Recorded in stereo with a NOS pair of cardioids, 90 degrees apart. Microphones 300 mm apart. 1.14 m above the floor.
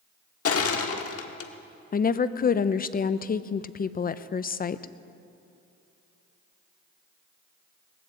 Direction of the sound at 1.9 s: 30° left.